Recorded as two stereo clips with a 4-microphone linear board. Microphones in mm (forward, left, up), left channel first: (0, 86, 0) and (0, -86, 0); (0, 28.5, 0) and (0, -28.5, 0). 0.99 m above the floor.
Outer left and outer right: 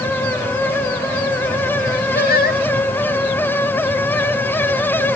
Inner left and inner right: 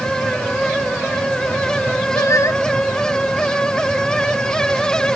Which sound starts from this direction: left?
Singing, at 2.1 s.